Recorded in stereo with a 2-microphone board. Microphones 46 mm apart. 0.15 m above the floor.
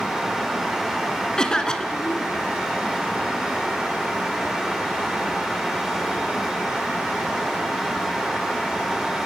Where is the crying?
No crying in this recording.